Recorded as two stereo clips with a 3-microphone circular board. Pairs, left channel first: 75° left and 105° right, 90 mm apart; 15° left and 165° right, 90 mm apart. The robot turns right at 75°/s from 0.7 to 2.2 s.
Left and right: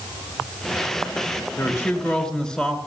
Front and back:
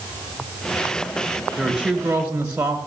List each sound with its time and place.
1.6 s a woman speaking: 95° left, 1.2 m; by 2.8 s 145° left, 1.2 m